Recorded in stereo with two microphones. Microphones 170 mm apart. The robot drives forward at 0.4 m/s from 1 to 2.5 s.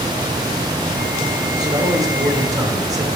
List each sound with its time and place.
1.6 s a man speaking: 25° right (ahead or behind), 2.5 m; by 3.1 s 20° right (ahead or behind), 3 m